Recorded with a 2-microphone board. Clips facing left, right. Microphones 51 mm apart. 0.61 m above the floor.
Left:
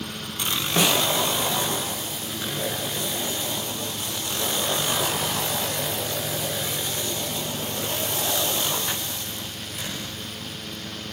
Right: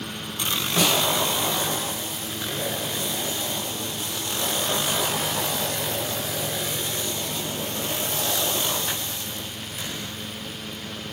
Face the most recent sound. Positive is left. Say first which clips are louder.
# left 1 dB
turn(degrees=20)  # may be behind; listen again after turning